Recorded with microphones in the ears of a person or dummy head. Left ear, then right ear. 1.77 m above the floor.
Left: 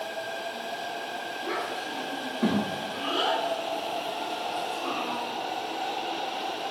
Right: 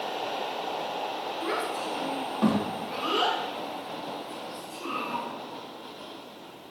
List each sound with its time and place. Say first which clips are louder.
1.4 s a child speaking: right 2 dB; 50° right (ahead or behind), 1.4 m; by 5.2 s 25° right (ahead or behind), 2.5 m